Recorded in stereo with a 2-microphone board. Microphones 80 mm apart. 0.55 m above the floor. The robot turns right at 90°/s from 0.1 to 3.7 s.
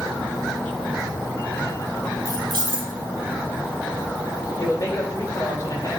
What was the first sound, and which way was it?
Keys jangling, 140° right.